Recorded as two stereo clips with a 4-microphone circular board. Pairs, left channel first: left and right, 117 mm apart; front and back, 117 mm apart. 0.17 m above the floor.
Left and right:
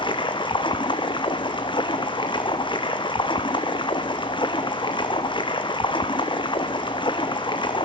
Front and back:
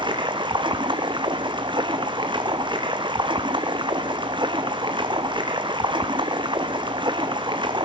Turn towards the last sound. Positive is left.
turn(degrees=135)